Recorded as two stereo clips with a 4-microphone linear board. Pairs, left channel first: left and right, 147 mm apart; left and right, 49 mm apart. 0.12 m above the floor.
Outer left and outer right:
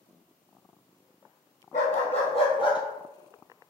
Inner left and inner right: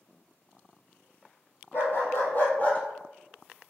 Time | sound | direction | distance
1.7 | a dog barking | 55° left (ahead or behind) | 1.4 m